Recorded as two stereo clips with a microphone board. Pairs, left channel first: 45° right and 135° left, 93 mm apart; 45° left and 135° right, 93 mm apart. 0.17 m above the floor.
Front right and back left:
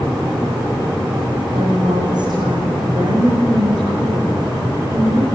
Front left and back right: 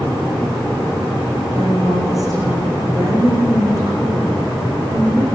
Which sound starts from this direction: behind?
A woman speaking, at 1.5 s.